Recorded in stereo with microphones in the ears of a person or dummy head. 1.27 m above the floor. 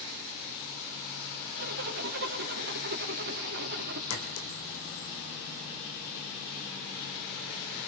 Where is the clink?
75° left (ahead or behind), 3.5 m.